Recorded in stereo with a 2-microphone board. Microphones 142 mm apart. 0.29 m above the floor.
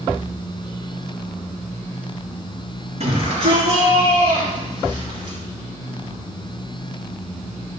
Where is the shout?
50° right (ahead or behind), 5 m; by 5.4 s 30° right (ahead or behind), 5.5 m.